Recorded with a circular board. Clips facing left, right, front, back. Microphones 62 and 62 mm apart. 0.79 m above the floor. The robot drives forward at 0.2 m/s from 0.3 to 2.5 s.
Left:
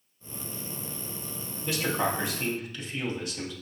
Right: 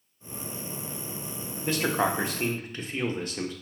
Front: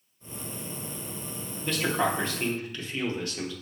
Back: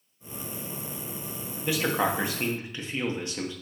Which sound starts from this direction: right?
A man speaking, at 1.6 s.